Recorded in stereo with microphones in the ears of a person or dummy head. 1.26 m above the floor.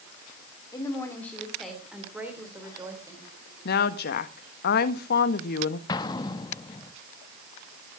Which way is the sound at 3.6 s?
50° left (ahead or behind).